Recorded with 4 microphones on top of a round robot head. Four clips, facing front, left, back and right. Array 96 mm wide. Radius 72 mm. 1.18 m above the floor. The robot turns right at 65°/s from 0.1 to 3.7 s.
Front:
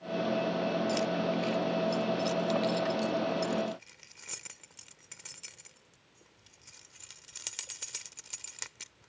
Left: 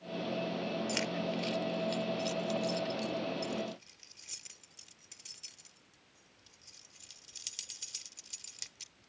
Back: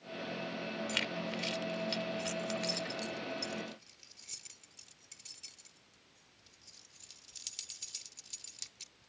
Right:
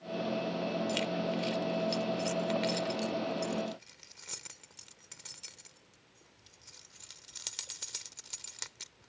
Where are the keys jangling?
140° left; by 9.1 s 40° right.